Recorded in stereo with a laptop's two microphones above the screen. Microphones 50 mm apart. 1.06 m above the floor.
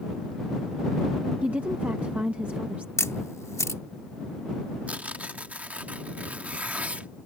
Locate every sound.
1.4 s a woman speaking: 30° right (ahead or behind)
3.0 s a camera shutter: 80° left
4.9 s tearing paper: 30° right (ahead or behind)